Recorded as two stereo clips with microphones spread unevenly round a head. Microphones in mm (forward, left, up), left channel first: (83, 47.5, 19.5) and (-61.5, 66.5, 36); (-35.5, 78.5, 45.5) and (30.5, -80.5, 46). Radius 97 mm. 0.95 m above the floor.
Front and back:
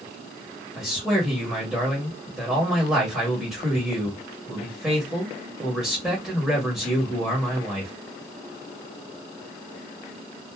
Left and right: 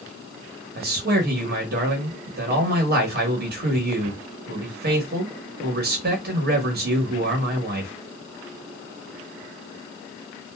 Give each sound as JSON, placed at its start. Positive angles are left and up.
{"t": 0.8, "sound": "a man speaking", "azimuth_deg": -100, "distance_m": 1.1}